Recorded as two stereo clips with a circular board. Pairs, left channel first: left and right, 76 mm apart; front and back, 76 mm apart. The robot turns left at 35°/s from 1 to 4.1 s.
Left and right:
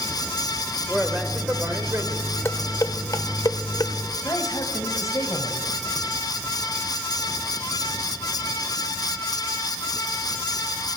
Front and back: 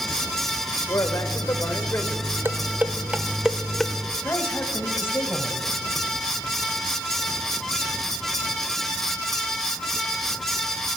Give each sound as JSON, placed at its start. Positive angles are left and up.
{"t": 0.9, "sound": "a man speaking", "azimuth_deg": -5, "distance_m": 1.5}
{"t": 2.5, "sound": "dishes clattering", "azimuth_deg": 135, "distance_m": 0.9}
{"t": 4.2, "sound": "a man speaking", "azimuth_deg": 55, "distance_m": 2.5}